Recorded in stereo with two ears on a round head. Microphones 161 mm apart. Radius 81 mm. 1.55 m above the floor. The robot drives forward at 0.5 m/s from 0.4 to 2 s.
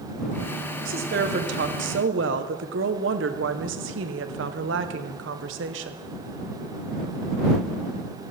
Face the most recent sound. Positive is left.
turn(degrees=-75)  # may be behind; listen again after turning